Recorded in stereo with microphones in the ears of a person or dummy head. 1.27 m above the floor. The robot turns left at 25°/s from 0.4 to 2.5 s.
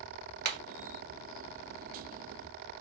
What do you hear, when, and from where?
0.5 s hammering: 60° right (ahead or behind), 1.4 m